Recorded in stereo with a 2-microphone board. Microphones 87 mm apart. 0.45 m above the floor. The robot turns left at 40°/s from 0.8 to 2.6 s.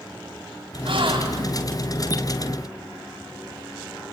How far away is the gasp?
About 2.5 m.